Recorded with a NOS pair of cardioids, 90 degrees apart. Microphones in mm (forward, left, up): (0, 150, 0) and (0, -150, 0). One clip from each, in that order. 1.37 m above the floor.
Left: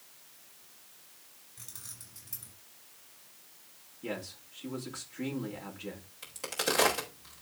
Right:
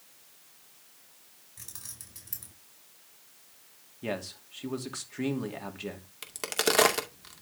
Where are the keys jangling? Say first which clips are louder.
Right 2 dB; 40° right, 5 m.